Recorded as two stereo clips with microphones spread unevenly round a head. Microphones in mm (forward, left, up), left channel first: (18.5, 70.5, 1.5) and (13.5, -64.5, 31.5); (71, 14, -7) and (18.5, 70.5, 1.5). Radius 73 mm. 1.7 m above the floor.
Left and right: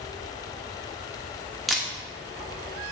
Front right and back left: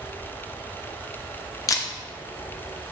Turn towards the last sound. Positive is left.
turn(degrees=-15)